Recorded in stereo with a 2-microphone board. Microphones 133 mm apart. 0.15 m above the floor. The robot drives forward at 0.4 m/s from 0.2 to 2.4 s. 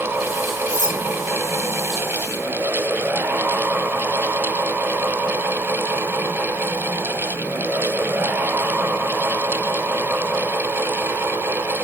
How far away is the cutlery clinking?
About 3.5 m.